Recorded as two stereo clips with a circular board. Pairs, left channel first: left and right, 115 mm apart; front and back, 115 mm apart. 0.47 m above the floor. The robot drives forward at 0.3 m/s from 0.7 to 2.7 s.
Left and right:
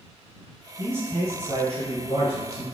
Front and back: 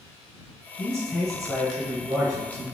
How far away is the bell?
I don't hear a bell.